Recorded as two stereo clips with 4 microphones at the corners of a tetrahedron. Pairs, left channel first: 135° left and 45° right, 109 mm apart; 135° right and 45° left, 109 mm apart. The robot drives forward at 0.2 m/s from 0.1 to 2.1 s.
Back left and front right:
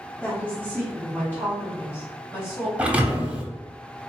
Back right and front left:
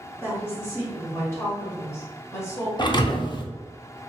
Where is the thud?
115° right, 0.6 m.